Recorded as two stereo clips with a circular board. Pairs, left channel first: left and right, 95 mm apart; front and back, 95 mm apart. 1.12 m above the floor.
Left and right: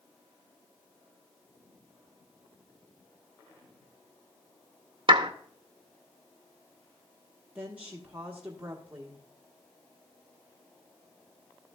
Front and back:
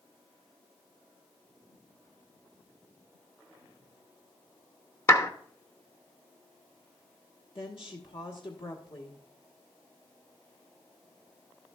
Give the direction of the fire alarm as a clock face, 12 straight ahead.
I don't hear a fire alarm.